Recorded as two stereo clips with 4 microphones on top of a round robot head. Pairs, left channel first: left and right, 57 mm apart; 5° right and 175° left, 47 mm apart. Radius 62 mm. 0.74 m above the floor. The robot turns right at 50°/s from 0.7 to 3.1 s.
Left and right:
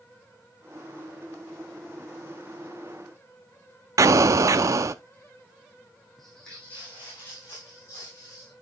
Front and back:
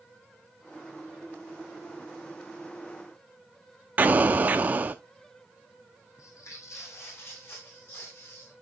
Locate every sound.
4.0 s an explosion: 120° right, 0.5 m
6.2 s footsteps: straight ahead, 1.9 m; by 8.5 s 40° left, 4.5 m